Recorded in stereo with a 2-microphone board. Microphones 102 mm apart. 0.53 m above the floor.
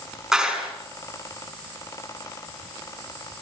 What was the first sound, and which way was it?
A clap, 5° right (ahead or behind).